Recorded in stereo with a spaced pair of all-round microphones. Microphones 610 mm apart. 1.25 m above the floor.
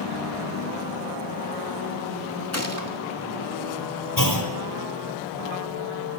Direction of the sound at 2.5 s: 25° left (ahead or behind).